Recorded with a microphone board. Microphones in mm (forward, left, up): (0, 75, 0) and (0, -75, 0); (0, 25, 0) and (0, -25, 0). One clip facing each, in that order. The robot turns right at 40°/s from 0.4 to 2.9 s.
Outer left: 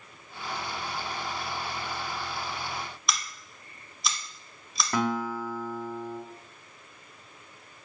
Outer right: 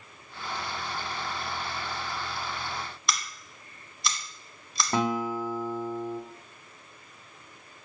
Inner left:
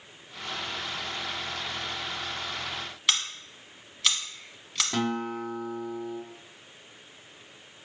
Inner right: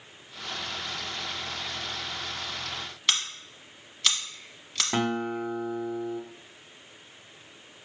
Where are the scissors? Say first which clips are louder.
Outer right 1 dB, even; centre (ahead or behind), 0.8 m.